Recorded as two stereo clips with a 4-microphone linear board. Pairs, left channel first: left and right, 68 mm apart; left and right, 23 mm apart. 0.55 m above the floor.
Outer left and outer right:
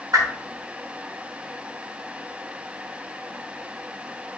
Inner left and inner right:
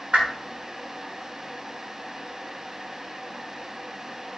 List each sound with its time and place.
0.1 s a whoosh: 65° right (ahead or behind), 3.5 m